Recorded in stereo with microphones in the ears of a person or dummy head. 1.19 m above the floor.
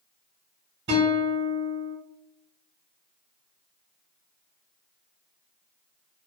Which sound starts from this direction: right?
A guitar, at 0.9 s.